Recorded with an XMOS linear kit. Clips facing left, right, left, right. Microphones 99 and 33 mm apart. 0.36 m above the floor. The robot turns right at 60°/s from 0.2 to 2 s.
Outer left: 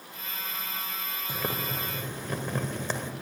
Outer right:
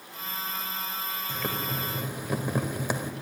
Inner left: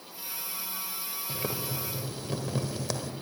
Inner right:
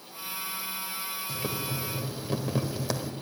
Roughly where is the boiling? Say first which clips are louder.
Outer left 1 dB, even; behind left.